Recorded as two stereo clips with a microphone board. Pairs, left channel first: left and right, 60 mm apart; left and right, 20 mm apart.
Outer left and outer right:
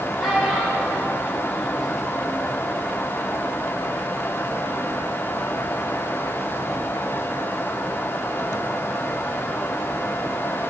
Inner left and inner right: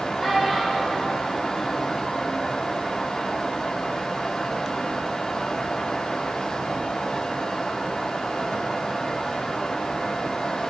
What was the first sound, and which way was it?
A child speaking, 10° right (ahead or behind).